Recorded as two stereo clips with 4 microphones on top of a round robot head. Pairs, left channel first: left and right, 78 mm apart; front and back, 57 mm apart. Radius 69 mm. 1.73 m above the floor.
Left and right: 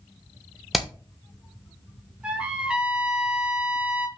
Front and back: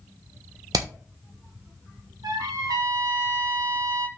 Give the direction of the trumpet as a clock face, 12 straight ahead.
6 o'clock.